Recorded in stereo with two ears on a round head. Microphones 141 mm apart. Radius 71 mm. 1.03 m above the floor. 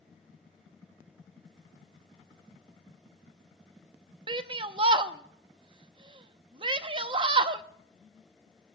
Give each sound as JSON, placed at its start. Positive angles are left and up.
{"t": 4.3, "sound": "a shout", "side_deg": -30, "distance_m": 0.7}